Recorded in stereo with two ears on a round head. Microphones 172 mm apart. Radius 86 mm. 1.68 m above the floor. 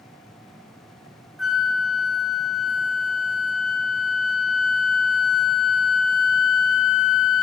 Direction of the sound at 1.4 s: Centre (ahead or behind).